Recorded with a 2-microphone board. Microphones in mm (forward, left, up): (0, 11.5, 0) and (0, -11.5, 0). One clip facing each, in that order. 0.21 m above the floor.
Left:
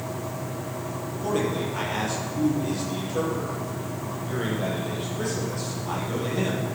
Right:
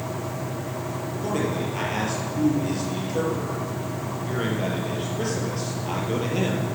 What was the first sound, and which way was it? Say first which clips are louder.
A man speaking: left 1 dB; 10° right (ahead or behind).